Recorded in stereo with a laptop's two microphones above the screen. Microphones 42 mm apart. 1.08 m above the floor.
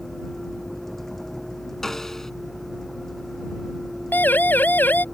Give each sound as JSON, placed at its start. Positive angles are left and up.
{"t": 0.0, "sound": "a vehicle", "side_deg": 5}
{"t": 1.8, "sound": "a snare drum", "side_deg": 10}
{"t": 4.1, "sound": "a siren", "side_deg": 55}